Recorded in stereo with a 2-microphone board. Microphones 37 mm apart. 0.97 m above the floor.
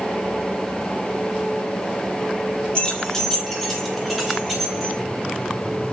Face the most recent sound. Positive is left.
turn(degrees=0)  # may be behind; listen again after turning